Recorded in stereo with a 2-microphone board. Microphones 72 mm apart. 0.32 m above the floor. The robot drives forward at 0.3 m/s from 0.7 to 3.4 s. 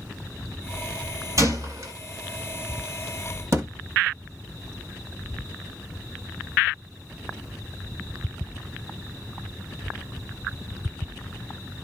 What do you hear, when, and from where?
1.4 s a gunshot: 50° right (ahead or behind), 1.8 m; by 1.9 s 55° right (ahead or behind), 1.7 m
3.5 s a thud: 45° right (ahead or behind), 0.7 m